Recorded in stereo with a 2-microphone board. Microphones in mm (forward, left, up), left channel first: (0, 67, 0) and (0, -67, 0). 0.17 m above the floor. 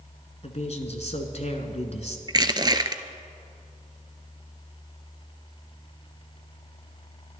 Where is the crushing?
30° right (ahead or behind), 0.7 m.